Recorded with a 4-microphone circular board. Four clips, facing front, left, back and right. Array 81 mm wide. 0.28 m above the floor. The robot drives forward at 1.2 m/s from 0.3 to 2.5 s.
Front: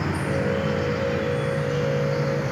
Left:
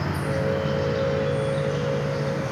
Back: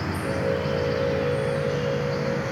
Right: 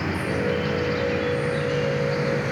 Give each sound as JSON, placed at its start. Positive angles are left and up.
{"t": 0.0, "sound": "an insect", "azimuth_deg": -65, "distance_m": 8.5}